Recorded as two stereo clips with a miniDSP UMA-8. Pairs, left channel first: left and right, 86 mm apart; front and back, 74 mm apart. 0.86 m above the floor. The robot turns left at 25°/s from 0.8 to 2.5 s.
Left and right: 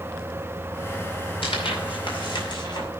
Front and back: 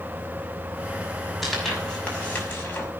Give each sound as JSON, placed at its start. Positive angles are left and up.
{"t": 1.4, "sound": "tearing paper", "azimuth_deg": 90, "distance_m": 6.0}